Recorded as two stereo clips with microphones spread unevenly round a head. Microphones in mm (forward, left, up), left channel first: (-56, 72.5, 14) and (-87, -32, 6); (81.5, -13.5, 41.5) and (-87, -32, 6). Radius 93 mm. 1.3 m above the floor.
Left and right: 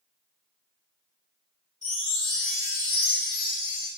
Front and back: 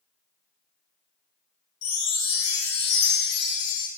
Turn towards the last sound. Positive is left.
turn(degrees=-10)